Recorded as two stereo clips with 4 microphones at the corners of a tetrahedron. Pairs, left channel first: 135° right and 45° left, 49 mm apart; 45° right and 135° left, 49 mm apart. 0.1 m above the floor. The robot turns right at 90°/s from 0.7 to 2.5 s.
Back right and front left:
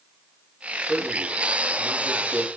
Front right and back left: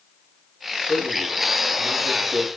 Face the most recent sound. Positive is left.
turn(degrees=125)